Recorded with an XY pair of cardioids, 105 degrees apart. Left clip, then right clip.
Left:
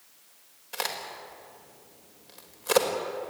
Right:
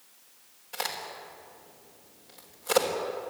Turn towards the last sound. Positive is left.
turn(degrees=25)